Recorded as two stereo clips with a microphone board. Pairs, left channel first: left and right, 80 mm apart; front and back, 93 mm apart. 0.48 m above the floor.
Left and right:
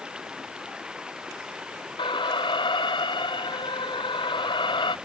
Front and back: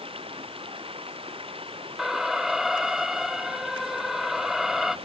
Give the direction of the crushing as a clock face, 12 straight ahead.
I don't hear crushing.